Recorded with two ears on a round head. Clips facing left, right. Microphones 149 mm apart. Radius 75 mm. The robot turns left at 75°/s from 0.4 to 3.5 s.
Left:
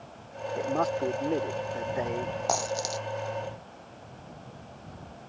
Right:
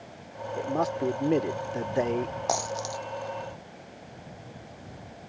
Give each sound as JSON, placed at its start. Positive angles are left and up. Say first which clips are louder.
{"t": 0.6, "sound": "a man speaking", "louder": "even", "azimuth_deg": 5}
{"t": 2.5, "sound": "a dropped coin", "louder": "left 2 dB", "side_deg": -5}